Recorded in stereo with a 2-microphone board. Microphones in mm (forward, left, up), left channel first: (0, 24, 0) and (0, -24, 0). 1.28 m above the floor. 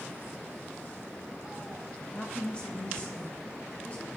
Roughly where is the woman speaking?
Centre.